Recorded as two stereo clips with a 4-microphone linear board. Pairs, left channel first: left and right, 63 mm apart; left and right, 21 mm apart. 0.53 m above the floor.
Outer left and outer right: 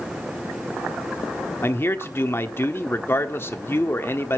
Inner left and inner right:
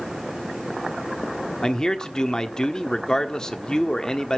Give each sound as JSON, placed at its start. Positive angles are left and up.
{"t": 1.6, "sound": "a man speaking", "side_deg": 40, "distance_m": 1.1}